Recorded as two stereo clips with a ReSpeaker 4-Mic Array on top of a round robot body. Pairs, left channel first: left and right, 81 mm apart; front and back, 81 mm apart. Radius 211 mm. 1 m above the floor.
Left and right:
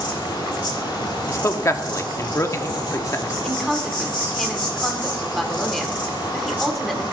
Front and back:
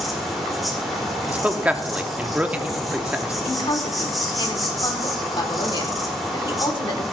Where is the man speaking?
115° left, 0.9 m.